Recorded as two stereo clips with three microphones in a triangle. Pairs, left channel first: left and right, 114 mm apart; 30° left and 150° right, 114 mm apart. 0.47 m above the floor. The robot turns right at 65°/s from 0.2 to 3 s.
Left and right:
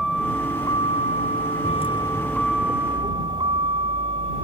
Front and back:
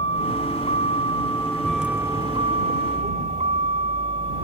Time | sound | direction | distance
0.0 | a vehicle | straight ahead | ?